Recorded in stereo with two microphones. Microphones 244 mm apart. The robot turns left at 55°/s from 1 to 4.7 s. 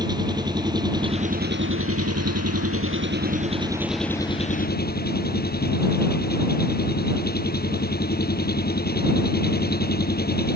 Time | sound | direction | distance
0.0 | an engine running | 15° right | ?